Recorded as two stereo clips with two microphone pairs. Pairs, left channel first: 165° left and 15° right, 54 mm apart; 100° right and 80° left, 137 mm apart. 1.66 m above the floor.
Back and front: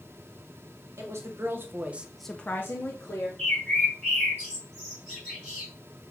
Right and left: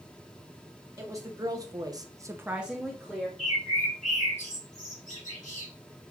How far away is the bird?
About 3.5 m.